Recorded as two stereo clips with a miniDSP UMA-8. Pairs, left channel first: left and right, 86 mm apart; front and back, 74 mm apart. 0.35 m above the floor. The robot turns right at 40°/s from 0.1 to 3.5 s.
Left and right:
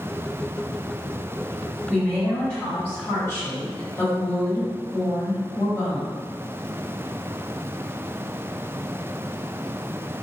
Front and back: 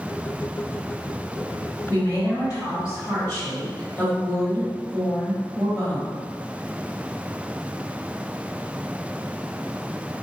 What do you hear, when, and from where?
1.9 s a woman speaking: 10° right, 1.9 m; by 6.2 s 55° left, 1.9 m